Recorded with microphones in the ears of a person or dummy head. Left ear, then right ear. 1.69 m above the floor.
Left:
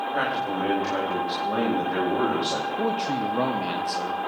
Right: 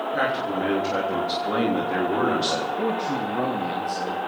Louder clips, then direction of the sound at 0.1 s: Right 2 dB; 20° left (ahead or behind).